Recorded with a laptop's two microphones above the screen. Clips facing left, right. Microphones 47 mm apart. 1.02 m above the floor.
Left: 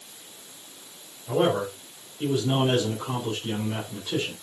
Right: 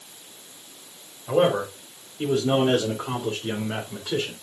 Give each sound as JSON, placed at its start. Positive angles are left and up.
{"t": 1.3, "sound": "a man speaking", "side_deg": -55, "distance_m": 3.0}